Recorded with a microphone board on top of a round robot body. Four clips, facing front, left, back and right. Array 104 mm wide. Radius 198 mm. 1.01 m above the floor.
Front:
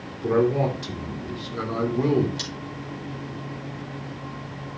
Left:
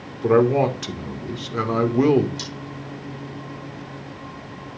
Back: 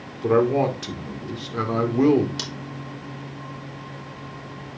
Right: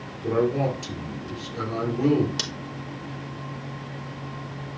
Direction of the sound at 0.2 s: 115° left.